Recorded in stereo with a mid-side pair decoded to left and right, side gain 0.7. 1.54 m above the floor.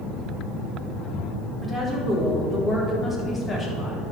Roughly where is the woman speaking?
Ahead.